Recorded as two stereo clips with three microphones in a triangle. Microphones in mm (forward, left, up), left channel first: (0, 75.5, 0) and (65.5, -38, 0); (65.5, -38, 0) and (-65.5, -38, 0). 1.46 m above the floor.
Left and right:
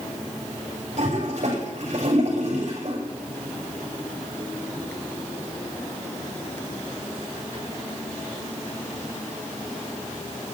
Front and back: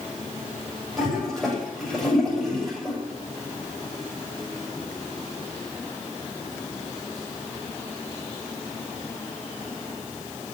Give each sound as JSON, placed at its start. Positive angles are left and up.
{"t": 1.0, "sound": "a toilet flushing", "azimuth_deg": -90, "distance_m": 8.5}